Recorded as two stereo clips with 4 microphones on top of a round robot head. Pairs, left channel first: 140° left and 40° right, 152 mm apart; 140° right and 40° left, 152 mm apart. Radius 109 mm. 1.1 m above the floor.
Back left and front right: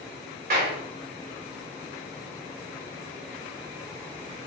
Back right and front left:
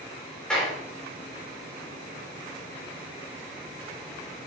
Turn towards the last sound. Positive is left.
turn(degrees=-55)